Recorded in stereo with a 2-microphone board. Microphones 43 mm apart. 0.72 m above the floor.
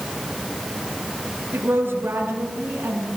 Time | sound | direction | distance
1.5 | a woman speaking | 70° right (ahead or behind) | 6 m